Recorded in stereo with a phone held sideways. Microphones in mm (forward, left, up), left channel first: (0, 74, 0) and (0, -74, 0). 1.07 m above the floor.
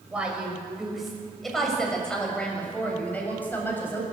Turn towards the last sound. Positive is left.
turn(degrees=15)  # may be behind; listen again after turning